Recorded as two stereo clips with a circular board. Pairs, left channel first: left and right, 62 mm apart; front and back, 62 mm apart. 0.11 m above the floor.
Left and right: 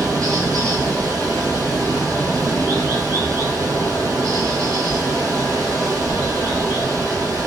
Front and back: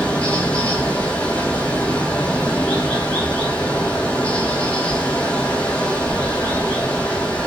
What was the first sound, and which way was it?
Running water, 75° right.